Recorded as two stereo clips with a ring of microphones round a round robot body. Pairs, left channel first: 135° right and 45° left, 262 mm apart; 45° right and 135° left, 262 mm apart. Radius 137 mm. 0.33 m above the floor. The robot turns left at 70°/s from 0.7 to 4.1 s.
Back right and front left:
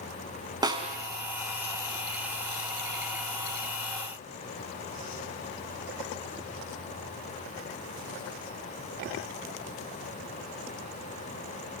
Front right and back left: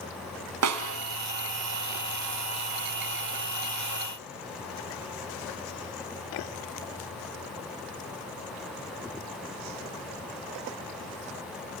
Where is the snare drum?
120° left, 3 m; by 1.0 s 100° left, 3 m.